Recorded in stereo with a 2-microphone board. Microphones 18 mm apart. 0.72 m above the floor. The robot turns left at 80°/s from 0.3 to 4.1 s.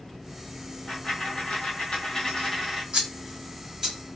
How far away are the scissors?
About 1.1 m.